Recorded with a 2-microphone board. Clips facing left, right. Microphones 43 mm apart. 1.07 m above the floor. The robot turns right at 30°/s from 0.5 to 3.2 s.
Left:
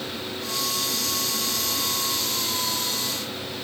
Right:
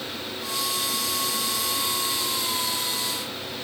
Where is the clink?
No clink in this recording.